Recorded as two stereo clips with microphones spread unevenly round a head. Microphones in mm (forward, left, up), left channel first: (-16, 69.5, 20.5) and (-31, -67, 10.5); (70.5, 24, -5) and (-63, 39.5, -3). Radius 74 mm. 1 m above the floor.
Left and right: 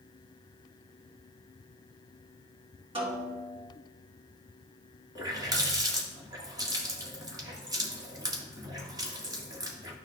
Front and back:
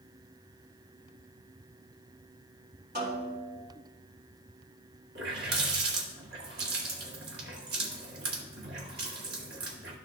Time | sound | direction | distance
3.0 | a snare drum | 145° right | 3.5 m
5.2 | a running tap | 160° right | 1.6 m